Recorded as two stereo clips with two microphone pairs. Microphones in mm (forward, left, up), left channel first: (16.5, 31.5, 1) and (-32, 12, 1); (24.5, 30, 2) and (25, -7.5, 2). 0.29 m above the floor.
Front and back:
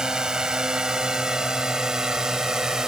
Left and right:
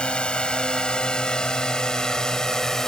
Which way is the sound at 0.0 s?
135° left.